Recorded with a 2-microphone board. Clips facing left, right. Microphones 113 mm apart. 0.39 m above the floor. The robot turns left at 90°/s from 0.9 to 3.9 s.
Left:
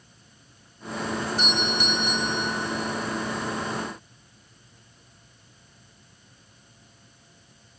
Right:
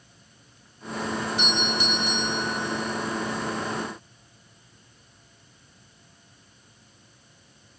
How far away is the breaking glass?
I don't hear breaking glass.